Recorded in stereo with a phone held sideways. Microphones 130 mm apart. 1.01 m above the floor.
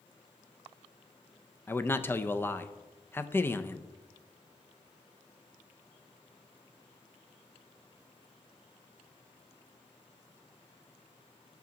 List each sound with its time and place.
1.7 s a man speaking: 15° left (ahead or behind), 0.5 m